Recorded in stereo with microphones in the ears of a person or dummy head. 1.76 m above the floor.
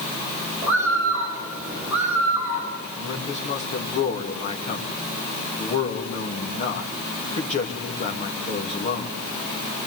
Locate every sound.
0.6 s a bird: 15° right (ahead or behind), 9 m
3.0 s a man speaking: 40° left (ahead or behind), 3 m